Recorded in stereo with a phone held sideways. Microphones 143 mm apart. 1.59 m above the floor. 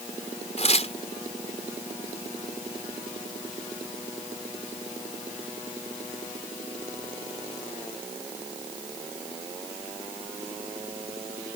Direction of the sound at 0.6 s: 50° left (ahead or behind).